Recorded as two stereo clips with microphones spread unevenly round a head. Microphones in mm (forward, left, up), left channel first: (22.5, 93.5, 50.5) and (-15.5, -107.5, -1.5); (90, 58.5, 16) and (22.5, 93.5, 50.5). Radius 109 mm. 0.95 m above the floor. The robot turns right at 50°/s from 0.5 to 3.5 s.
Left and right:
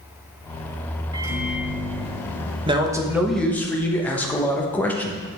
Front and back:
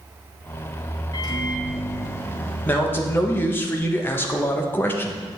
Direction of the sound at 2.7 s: 55° right.